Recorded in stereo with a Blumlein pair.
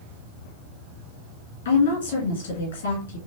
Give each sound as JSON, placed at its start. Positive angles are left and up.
{"t": 1.6, "sound": "a woman speaking", "azimuth_deg": 60, "distance_m": 1.8}